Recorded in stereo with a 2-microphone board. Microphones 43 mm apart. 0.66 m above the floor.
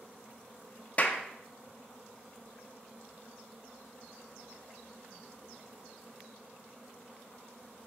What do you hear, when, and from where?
1.0 s a clap: 35° left (ahead or behind), 0.7 m